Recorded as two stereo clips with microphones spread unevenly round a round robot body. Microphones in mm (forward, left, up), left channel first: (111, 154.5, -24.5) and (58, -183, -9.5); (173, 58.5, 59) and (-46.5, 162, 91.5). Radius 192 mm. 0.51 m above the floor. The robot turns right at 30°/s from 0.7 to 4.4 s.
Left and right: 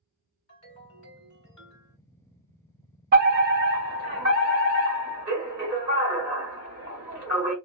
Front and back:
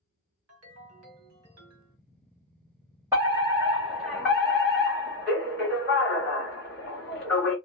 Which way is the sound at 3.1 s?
125° right.